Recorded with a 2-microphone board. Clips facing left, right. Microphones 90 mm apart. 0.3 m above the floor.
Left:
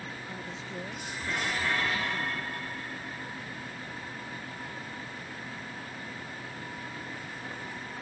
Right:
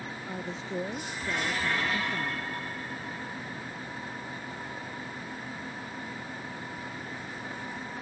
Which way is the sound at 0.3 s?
30° right (ahead or behind).